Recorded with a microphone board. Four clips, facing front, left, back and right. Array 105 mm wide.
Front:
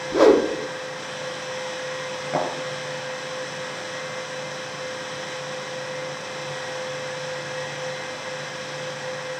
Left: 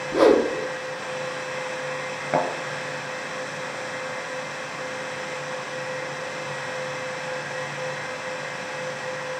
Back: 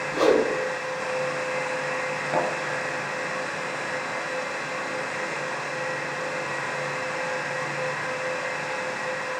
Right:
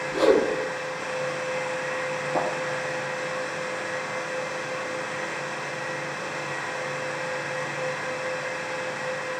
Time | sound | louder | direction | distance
0.1 | a whoosh | left 3 dB, front 5 dB | 35° left | 0.7 m
2.3 | a thud | left 4 dB, even | 90° left | 2 m